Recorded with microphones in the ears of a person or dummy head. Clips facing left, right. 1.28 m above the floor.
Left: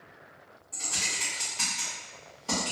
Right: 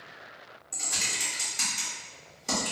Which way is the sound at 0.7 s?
25° right (ahead or behind).